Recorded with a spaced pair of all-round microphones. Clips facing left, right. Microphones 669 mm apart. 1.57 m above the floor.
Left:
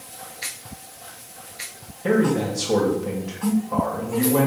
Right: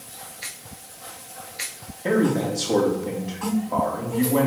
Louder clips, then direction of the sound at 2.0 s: Left 1 dB; 40° left (ahead or behind).